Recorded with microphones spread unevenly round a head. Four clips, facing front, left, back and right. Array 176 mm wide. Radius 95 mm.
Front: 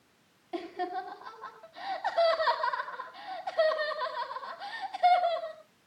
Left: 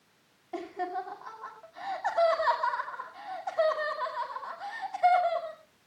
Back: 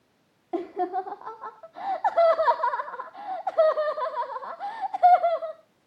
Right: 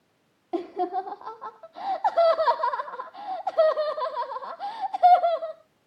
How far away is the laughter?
About 1.6 m.